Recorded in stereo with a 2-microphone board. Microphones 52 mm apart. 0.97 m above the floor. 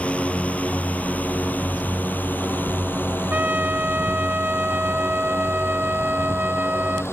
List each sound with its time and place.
0.0 s a drone: 25° left (ahead or behind); by 7.1 s 50° left (ahead or behind)
3.3 s a trumpet: 30° right (ahead or behind)